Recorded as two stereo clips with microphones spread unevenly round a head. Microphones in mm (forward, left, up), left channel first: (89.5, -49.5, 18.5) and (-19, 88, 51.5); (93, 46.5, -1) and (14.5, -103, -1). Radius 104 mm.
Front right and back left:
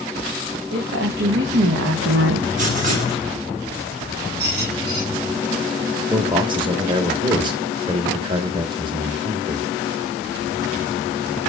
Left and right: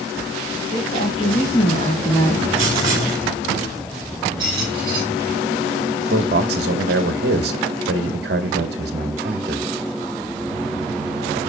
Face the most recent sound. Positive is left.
turn(degrees=-165)